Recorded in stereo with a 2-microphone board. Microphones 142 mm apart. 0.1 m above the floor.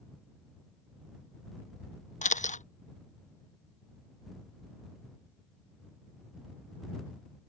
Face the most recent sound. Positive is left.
turn(degrees=60)  # may be behind; listen again after turning